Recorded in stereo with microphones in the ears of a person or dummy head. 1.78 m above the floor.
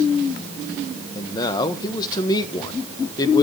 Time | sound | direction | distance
1.1 | a man speaking | 25° left (ahead or behind) | 1.4 m